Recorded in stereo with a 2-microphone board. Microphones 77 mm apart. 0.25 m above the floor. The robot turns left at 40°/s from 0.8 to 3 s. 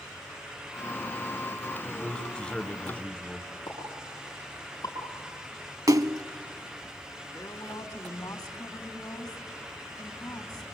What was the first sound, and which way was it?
A man speaking, 5° left (ahead or behind).